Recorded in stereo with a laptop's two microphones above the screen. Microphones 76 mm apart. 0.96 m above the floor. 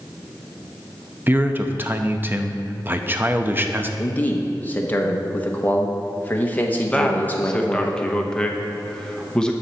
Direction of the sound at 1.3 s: 25° right (ahead or behind).